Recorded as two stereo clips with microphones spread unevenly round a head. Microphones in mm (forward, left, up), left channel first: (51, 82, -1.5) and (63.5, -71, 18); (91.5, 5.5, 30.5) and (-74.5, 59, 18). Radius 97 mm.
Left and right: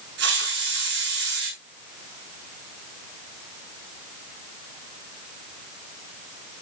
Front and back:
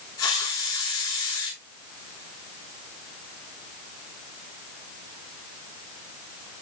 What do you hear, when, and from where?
0.2 s a hiss: 90° right, 9 m